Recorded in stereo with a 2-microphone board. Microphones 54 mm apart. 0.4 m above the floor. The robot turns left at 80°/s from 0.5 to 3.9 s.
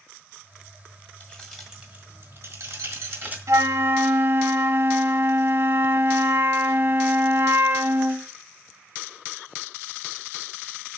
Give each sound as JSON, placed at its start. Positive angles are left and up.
{"t": 1.2, "sound": "keys jangling", "side_deg": 25, "distance_m": 1.5}
{"t": 3.5, "sound": "a flute", "azimuth_deg": -100, "distance_m": 0.6}